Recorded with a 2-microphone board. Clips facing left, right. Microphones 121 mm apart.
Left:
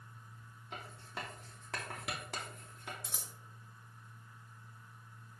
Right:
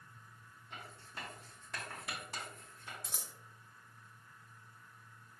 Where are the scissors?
Centre (ahead or behind), 0.8 m.